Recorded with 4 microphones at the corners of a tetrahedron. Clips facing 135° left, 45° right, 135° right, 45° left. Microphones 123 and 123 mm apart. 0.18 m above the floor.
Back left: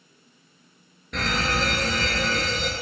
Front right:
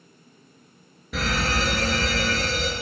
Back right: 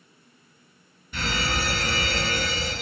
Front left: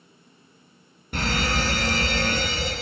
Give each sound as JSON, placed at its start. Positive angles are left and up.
{"t": 1.1, "sound": "a fire alarm", "azimuth_deg": 40, "distance_m": 3.5}